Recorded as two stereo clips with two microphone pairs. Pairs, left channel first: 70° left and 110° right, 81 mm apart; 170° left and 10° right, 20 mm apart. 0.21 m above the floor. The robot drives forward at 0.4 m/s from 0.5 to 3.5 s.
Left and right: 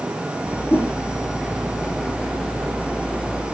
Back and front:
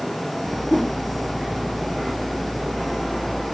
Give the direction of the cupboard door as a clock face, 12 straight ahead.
I don't hear a cupboard door.